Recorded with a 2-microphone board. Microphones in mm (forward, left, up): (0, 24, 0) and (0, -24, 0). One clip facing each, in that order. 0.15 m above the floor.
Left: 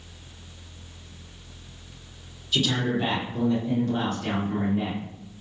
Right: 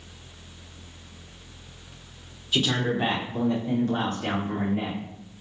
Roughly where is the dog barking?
No dog barking in this recording.